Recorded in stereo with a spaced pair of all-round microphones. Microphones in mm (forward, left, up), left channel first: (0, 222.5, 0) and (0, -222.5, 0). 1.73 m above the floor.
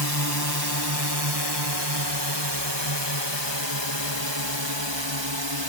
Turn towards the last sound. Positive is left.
turn(degrees=-75)  # may be behind; listen again after turning